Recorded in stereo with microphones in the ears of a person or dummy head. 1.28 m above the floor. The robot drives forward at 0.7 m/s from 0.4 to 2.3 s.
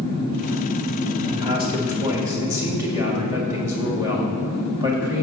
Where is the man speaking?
30° right (ahead or behind), 1.5 m; by 5.2 s 20° right (ahead or behind), 2 m.